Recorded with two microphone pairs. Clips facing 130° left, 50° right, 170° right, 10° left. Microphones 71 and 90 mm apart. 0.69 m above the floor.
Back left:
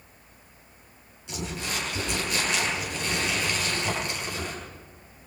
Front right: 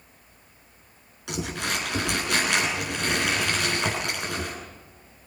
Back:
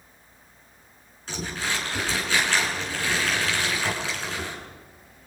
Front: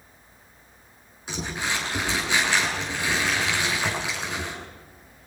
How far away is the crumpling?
About 9.5 m.